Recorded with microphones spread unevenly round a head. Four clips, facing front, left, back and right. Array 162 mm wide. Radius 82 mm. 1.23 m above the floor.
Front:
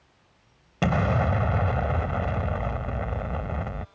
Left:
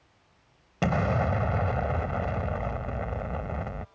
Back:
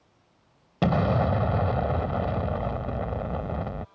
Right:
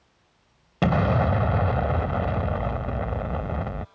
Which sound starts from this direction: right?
An explosion, at 0.8 s.